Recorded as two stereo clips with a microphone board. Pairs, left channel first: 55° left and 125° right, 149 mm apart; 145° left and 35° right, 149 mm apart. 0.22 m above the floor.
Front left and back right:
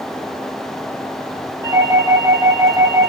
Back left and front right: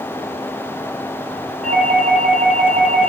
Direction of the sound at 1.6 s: 60° right.